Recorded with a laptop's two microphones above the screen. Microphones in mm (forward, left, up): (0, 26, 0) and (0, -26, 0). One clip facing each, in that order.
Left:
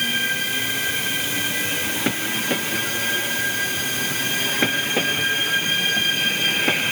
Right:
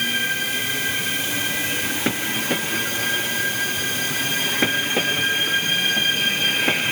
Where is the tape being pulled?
No tape being pulled in this recording.